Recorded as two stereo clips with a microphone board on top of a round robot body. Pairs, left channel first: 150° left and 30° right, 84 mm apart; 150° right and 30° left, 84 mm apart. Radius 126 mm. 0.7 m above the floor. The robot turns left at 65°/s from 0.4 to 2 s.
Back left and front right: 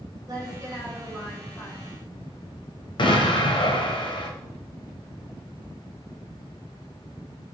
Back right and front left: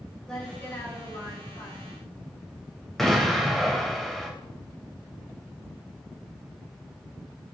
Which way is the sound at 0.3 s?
65° right.